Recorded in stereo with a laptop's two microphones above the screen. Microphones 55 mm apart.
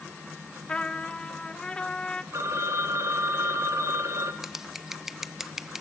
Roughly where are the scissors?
Centre.